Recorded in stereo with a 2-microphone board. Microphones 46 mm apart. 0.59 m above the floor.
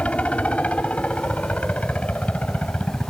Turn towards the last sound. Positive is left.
turn(degrees=30)  # may be behind; listen again after turning